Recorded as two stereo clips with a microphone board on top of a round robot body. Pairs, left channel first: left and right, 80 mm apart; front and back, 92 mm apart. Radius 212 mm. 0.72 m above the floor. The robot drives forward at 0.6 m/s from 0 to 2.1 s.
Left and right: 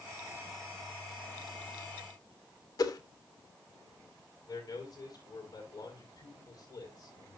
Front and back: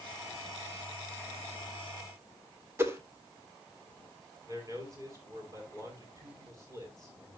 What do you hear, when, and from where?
2.8 s a whoosh: 120° left, 1.8 m
4.5 s a man speaking: 125° left, 7 m